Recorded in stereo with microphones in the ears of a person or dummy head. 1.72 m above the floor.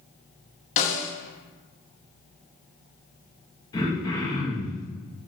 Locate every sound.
0.8 s a snare drum: 45° left (ahead or behind), 1.1 m
3.7 s throat clearing: 25° left (ahead or behind), 1.7 m